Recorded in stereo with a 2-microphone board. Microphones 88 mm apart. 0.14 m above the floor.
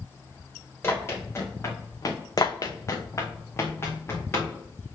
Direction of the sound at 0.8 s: 25° left (ahead or behind).